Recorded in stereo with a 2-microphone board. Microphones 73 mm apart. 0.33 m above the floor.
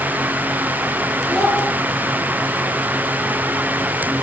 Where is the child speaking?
5° left (ahead or behind), 0.8 m.